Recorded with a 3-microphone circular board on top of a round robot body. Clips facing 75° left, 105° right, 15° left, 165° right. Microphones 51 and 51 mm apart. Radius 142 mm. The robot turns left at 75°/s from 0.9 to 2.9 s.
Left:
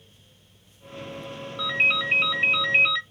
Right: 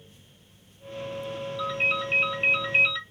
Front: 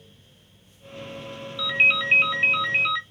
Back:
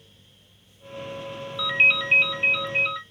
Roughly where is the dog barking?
I don't hear a dog barking.